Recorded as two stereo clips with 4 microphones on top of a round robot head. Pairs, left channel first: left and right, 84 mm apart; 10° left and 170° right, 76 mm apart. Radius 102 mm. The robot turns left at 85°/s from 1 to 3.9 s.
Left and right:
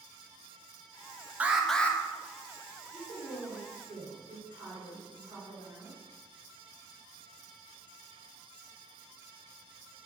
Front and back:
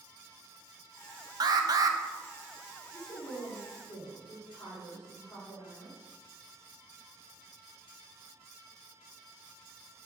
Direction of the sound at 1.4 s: 160° right.